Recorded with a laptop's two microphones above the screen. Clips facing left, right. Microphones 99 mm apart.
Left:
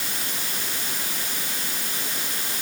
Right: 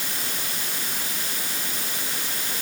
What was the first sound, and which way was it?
Only background noise.